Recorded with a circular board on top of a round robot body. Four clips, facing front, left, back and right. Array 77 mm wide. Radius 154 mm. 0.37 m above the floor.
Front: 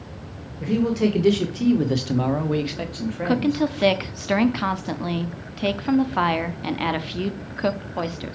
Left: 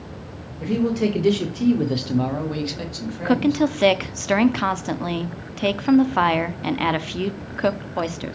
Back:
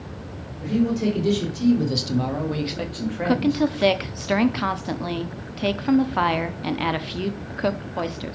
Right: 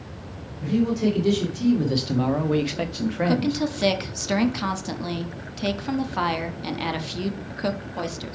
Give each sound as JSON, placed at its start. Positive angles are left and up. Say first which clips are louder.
{"t": 0.6, "sound": "a man speaking", "louder": "left 1 dB, front 1 dB", "azimuth_deg": 45, "distance_m": 2.5}
{"t": 3.2, "sound": "a woman speaking", "louder": "left 7 dB, back 1 dB", "azimuth_deg": 90, "distance_m": 0.9}